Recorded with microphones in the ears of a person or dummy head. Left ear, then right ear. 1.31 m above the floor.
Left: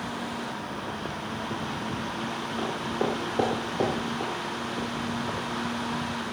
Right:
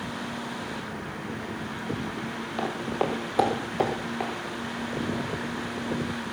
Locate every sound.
2.6 s footsteps: 25° right (ahead or behind), 1.8 m; by 4.3 s 45° right (ahead or behind), 2.5 m